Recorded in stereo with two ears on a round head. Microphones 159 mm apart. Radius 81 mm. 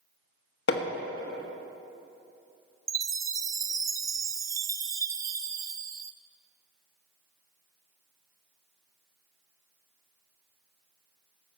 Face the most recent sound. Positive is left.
turn(degrees=-20)  # may be behind; listen again after turning